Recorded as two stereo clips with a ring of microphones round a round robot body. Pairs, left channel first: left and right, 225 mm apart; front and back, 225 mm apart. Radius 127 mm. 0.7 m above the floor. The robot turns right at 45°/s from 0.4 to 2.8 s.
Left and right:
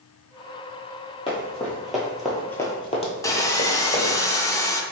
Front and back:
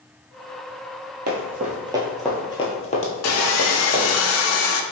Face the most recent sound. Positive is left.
turn(degrees=15)